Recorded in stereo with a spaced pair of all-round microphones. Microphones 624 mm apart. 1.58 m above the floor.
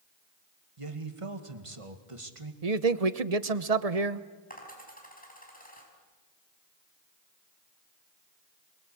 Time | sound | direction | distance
0.8 | a man speaking | 55° right (ahead or behind) | 2 m
2.6 | a man speaking | 70° right (ahead or behind) | 1.1 m
4.5 | a dropped coin | 15° left (ahead or behind) | 5.5 m